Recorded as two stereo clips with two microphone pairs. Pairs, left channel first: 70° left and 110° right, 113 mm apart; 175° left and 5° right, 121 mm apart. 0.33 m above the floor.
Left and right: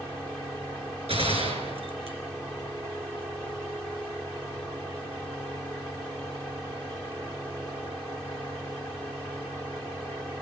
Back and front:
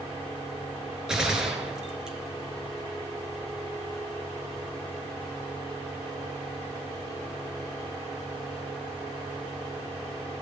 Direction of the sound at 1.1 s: 90° right.